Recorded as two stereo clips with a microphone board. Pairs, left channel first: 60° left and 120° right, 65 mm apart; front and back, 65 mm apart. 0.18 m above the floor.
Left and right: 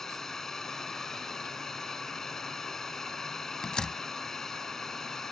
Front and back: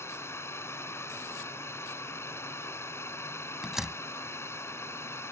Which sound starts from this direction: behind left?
A door slam, at 3.6 s.